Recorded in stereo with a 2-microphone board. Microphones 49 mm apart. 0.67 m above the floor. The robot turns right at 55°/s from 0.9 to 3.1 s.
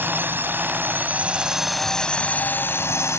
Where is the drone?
45° right; by 3.2 s 75° left.